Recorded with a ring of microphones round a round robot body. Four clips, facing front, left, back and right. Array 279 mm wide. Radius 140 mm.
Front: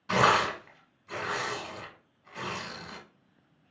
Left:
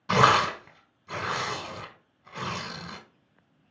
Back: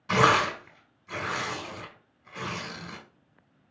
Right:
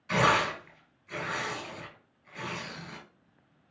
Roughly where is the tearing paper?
Left.